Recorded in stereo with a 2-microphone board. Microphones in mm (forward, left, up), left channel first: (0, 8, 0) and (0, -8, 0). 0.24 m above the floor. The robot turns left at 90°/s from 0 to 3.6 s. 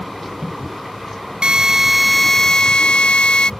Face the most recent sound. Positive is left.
turn(degrees=45)